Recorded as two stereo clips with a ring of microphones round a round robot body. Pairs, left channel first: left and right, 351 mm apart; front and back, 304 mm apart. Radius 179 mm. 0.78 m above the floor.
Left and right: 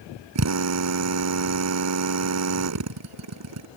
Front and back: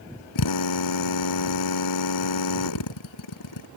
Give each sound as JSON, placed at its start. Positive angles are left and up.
{"t": 0.3, "sound": "a drill", "azimuth_deg": -40}